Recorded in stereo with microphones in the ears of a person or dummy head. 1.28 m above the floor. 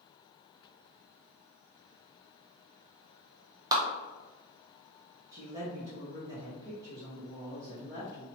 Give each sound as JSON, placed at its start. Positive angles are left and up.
{"t": 3.7, "sound": "a clap", "side_deg": -20, "distance_m": 1.0}
{"t": 5.3, "sound": "a woman speaking", "side_deg": -20, "distance_m": 1.2}